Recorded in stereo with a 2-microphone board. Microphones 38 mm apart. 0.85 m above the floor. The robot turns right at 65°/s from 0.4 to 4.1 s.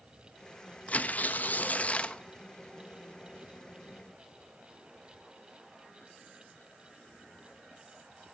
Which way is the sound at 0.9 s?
55° left.